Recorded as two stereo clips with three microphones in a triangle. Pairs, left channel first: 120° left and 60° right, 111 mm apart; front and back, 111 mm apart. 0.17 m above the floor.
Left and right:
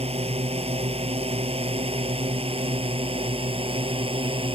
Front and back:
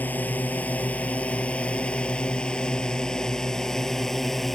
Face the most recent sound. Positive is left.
turn(degrees=-90)